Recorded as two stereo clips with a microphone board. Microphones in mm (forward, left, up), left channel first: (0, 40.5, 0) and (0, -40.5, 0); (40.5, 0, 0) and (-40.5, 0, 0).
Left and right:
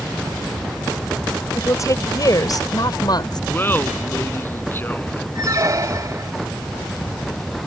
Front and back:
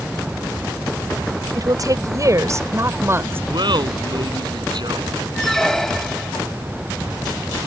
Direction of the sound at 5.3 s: 80° right.